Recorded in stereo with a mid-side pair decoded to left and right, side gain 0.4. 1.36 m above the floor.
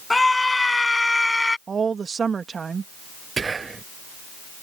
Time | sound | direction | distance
0.1 | a scream | 20° left | ?
1.7 | a woman speaking | 45° right | ?
3.4 | whispering | 40° right | ?